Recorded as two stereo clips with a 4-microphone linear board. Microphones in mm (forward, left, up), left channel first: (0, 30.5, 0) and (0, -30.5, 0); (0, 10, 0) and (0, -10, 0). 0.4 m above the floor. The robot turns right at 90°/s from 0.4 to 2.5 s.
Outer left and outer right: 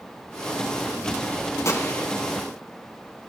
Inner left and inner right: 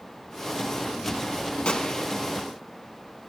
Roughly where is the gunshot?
Behind left.